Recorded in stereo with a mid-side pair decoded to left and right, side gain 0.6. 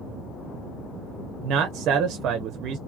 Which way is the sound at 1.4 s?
60° right.